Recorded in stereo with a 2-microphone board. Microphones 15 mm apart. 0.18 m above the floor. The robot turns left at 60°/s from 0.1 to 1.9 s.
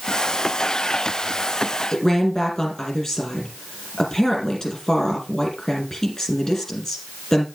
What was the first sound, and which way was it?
A woman speaking, 50° left (ahead or behind).